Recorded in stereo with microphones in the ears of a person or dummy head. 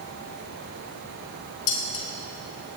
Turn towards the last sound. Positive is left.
turn(degrees=70)  # may be behind; listen again after turning